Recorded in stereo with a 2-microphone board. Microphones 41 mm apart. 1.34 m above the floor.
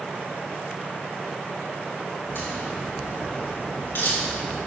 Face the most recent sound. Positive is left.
turn(degrees=65)  # may be behind; listen again after turning